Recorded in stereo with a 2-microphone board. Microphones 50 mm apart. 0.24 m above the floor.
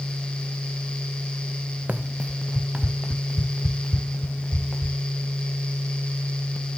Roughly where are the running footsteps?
Right.